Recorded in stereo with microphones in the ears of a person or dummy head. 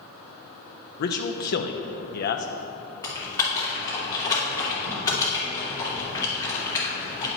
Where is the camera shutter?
No camera shutter in this recording.